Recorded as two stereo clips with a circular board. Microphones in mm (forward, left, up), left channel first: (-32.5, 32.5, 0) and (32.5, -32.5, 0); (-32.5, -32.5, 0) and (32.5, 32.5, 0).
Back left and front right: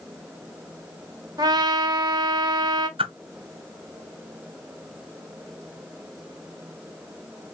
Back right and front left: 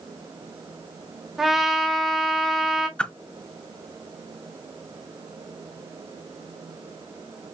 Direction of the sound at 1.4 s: 40° right.